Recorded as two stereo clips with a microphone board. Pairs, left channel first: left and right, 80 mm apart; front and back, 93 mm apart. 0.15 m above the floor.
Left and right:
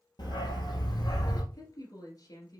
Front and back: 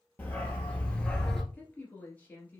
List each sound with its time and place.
0.2 s a dog barking: 70° left, 1.6 m; by 1.4 s 85° left, 1.0 m
1.5 s a woman speaking: 70° left, 1.9 m